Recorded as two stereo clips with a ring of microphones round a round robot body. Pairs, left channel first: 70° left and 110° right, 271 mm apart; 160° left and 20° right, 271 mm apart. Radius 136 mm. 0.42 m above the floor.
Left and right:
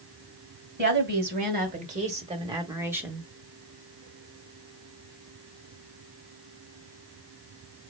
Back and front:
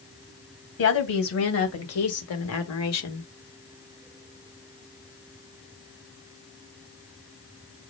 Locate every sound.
0.8 s a woman speaking: 165° right, 2.5 m; by 3.3 s 160° left, 1.4 m